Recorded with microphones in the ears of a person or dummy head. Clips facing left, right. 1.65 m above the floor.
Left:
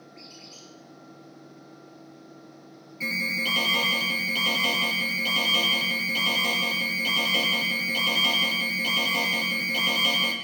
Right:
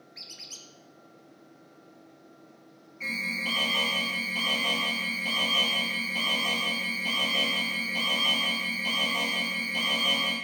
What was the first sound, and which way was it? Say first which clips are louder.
A squeak: left 6 dB; 60° right (ahead or behind).